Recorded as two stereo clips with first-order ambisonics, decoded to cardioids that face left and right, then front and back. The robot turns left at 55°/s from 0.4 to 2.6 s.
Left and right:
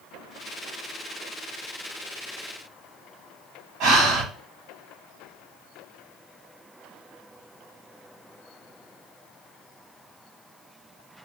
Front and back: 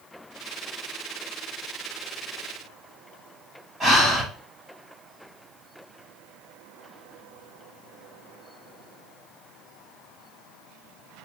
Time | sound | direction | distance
3.8 | breathing | 115° right | 1.5 m